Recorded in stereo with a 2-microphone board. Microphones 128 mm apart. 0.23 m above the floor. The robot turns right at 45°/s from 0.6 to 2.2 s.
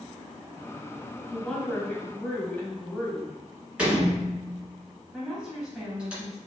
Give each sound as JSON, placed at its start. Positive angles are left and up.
{"t": 1.3, "sound": "a woman speaking", "side_deg": 0, "distance_m": 1.0}
{"t": 3.8, "sound": "a door slam", "side_deg": -10, "distance_m": 1.5}
{"t": 5.1, "sound": "a woman speaking", "side_deg": -5, "distance_m": 1.1}